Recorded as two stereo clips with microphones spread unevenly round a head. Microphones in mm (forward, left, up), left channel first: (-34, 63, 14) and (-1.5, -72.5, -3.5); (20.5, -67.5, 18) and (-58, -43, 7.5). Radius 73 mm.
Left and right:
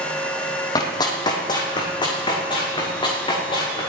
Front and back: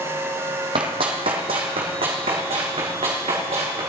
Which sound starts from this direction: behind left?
Running footsteps, at 0.8 s.